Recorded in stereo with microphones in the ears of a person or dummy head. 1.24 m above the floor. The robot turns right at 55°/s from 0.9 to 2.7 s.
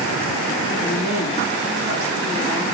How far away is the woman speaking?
About 4 m.